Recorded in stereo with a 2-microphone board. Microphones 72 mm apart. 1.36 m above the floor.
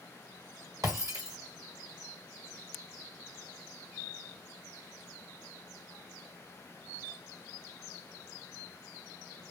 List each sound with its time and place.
0.8 s breaking glass: 55° right (ahead or behind), 1.5 m